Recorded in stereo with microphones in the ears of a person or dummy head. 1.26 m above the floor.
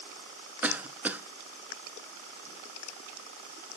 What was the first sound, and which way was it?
A cough, 10° right (ahead or behind).